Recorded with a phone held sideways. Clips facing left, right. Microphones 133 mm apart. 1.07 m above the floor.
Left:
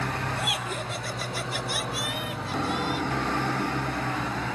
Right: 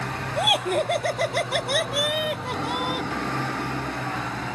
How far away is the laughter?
About 1.0 m.